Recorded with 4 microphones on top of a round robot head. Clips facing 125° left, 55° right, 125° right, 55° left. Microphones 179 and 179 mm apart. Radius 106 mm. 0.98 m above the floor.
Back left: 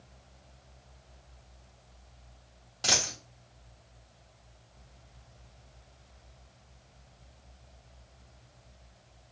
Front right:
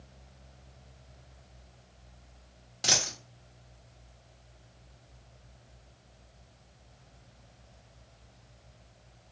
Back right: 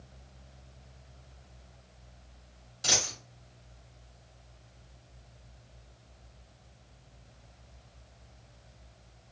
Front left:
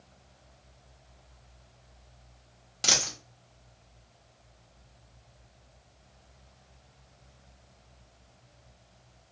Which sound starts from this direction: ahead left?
A dropped coin, at 2.8 s.